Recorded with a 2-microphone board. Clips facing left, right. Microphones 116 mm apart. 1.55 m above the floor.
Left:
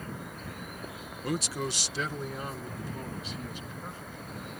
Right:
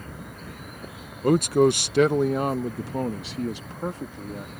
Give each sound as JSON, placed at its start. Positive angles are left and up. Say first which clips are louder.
{"t": 1.2, "sound": "a man speaking", "louder": "right 15 dB", "side_deg": -50}